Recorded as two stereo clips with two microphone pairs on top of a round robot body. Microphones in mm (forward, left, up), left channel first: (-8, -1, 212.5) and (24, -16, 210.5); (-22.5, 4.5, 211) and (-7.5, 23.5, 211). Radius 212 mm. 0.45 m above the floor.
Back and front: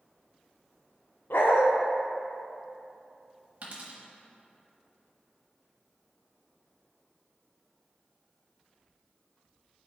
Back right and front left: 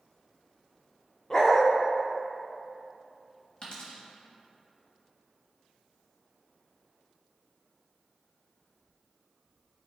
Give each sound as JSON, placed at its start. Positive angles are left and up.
{"t": 1.3, "sound": "a dog barking", "azimuth_deg": 165, "distance_m": 0.8}
{"t": 3.6, "sound": "a dropped coin", "azimuth_deg": -75, "distance_m": 1.0}